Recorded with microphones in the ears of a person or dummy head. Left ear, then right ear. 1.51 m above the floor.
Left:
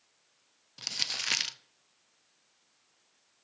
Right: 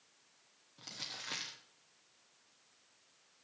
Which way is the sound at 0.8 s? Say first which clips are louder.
Left 12 dB; 70° left (ahead or behind).